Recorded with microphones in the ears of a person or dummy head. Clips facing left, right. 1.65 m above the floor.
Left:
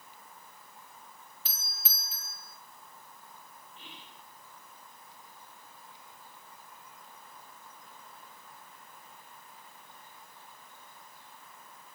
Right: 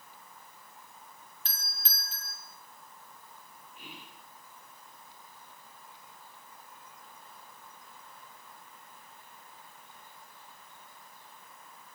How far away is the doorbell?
About 3 m.